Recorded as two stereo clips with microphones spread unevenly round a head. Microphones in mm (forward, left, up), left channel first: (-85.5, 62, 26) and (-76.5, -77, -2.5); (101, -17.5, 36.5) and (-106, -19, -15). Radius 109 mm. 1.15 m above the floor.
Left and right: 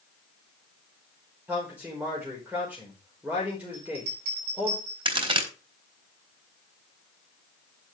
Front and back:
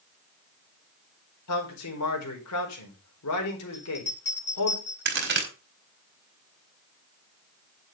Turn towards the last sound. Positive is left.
turn(degrees=-140)